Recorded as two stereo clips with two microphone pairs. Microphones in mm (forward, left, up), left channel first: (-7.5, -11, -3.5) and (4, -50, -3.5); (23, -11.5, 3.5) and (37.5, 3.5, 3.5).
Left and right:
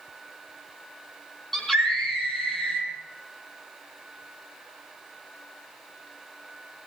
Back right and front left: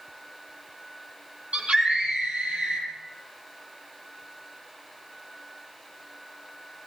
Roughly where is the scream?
Ahead.